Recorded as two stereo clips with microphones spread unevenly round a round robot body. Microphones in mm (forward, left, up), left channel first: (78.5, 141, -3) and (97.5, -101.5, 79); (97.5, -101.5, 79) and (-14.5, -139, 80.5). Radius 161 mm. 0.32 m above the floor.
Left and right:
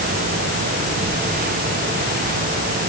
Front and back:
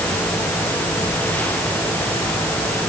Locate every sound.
Only background noise.